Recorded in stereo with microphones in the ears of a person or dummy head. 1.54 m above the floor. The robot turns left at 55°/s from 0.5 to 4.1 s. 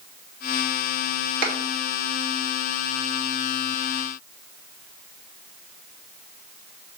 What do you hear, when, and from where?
1.4 s a clap: 50° right (ahead or behind), 3 m; by 1.6 s 60° right (ahead or behind), 3 m